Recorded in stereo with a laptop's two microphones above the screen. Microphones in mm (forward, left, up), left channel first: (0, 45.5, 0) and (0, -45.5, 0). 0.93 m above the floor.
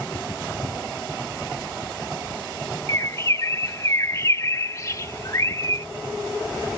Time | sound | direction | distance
2.9 | a bird | 35° left (ahead or behind) | ?